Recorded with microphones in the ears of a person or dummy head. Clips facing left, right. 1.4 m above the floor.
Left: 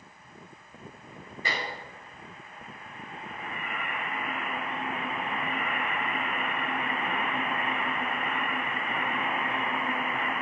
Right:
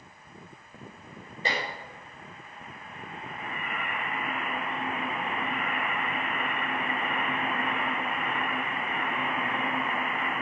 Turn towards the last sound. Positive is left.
turn(degrees=-25)  # may be behind; listen again after turning